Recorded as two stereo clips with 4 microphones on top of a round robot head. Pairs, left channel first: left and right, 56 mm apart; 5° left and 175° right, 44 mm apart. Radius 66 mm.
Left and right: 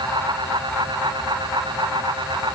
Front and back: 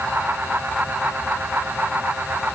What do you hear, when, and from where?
Only background noise.